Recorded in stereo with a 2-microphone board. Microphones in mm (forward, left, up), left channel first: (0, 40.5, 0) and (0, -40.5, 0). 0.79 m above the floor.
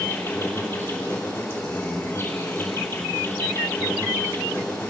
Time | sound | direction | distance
0.0 | an insect | 25° left (ahead or behind) | 3 m